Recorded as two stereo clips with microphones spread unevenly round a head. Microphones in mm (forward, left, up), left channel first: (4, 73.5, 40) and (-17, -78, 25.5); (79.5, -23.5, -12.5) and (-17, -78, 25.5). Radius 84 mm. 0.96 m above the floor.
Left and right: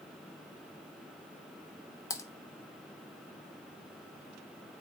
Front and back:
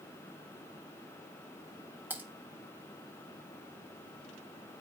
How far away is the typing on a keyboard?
About 0.6 m.